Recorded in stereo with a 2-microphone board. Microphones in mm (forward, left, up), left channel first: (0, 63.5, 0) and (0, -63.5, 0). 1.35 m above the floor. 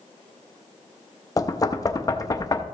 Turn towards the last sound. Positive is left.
turn(degrees=30)  # may be behind; listen again after turning